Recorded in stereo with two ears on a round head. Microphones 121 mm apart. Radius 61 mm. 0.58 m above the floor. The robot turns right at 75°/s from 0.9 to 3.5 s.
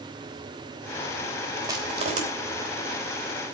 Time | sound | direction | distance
1.6 | crushing | 25° right (ahead or behind) | 3 m